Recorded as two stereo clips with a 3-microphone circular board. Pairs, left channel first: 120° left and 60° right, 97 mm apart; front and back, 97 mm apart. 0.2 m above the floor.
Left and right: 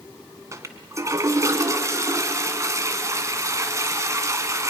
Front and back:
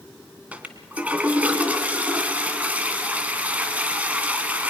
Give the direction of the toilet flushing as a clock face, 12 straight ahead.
4 o'clock.